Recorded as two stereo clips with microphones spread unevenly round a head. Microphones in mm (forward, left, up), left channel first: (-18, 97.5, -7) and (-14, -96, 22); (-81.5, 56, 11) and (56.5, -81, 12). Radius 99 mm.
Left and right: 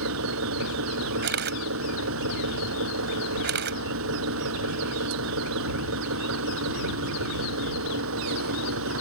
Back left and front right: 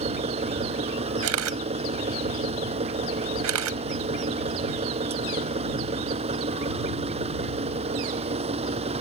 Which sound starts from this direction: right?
An engine running, at 0.0 s.